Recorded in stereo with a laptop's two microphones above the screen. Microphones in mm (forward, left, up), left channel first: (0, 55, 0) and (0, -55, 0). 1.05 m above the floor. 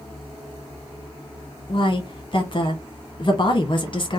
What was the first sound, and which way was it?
A woman speaking, 45° left (ahead or behind).